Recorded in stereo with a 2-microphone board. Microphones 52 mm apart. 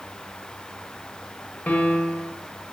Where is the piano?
35° left (ahead or behind), 0.7 m.